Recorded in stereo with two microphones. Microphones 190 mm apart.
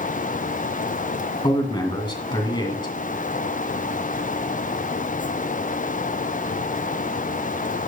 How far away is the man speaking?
About 2.5 m.